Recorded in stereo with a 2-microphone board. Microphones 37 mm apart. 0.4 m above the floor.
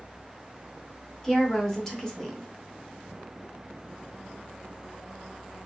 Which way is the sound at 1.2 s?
15° left (ahead or behind).